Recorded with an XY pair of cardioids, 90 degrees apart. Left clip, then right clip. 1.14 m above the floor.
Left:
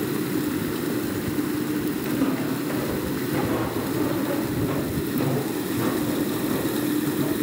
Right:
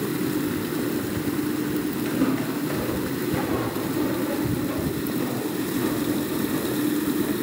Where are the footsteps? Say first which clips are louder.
Right 1 dB; 5° right, 4.5 m; by 7.3 s 75° left, 8 m.